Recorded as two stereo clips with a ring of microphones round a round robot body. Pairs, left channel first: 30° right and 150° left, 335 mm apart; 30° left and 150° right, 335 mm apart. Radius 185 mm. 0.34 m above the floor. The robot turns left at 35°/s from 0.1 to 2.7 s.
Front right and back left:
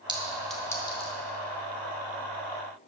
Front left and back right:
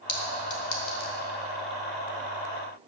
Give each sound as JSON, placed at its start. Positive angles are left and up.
{"t": 0.1, "sound": "a clink", "azimuth_deg": 75, "distance_m": 2.0}